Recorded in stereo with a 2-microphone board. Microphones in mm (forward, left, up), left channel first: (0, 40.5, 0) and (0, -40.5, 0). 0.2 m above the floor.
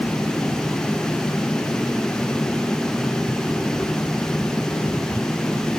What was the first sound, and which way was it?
Only background noise.